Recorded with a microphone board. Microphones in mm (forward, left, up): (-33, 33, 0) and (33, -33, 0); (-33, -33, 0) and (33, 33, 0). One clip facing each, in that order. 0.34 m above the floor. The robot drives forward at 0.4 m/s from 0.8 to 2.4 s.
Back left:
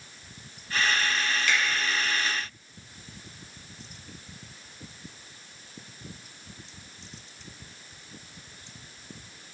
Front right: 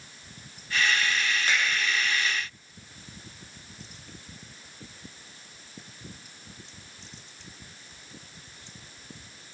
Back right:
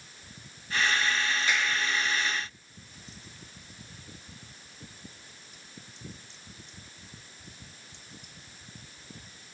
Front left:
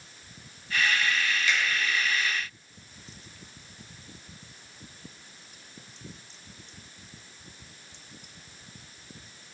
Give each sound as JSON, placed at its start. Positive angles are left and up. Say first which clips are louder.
{"t": 1.5, "sound": "a finger snap", "louder": "back left 1 dB, even", "azimuth_deg": -90, "distance_m": 2.0}